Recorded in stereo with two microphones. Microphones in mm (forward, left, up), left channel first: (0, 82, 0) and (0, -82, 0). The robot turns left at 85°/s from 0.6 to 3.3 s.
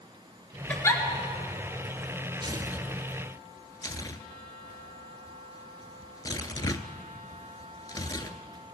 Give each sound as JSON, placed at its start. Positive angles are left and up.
{"t": 0.7, "sound": "a giggle", "side_deg": 10, "distance_m": 1.7}
{"t": 2.4, "sound": "tearing paper", "side_deg": -35, "distance_m": 0.6}